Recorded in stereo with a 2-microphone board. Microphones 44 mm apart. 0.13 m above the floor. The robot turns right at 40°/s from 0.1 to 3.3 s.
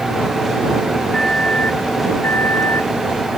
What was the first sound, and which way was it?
A microwave, 15° left.